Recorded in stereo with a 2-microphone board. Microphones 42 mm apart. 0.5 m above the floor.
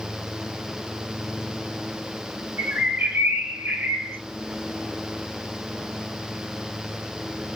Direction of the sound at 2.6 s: 65° right (ahead or behind).